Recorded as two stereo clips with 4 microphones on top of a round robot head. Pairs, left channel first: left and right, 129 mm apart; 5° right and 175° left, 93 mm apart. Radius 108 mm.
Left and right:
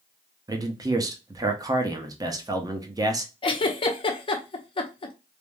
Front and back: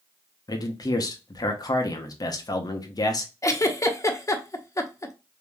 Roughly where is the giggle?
Ahead left.